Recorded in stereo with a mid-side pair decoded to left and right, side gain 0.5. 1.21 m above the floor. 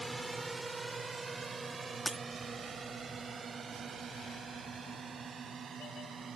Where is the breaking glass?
Straight ahead.